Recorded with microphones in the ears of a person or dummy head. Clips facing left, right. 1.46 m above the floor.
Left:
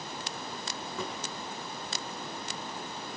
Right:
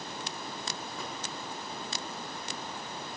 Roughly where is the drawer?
Left.